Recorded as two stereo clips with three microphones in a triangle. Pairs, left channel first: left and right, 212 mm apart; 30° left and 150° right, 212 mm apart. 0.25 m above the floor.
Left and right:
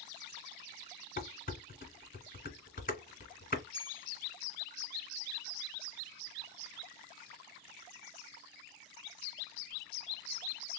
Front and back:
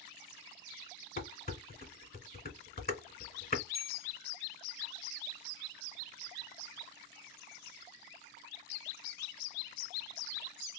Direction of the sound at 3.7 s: 140° right.